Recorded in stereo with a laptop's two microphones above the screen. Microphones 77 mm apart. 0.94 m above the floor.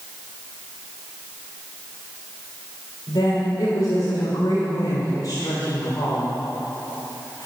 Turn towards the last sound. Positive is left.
turn(degrees=60)  # may be behind; listen again after turning